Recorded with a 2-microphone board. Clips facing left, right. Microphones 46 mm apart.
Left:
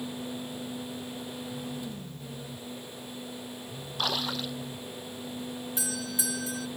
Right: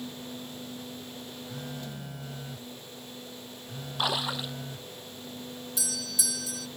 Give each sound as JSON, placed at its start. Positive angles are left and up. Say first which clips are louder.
{"t": 1.5, "sound": "a phone buzzing", "louder": "even", "side_deg": -85}
{"t": 4.0, "sound": "a splash", "louder": "right 1 dB", "side_deg": -10}
{"t": 5.8, "sound": "a doorbell", "louder": "left 1 dB", "side_deg": 30}